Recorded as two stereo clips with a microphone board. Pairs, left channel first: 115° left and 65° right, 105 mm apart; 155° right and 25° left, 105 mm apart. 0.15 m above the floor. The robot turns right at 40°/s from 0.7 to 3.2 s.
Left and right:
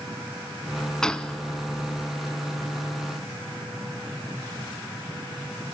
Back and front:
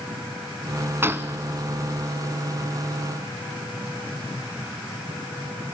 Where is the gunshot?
40° left, 0.7 m; by 1.4 s 50° left, 0.7 m.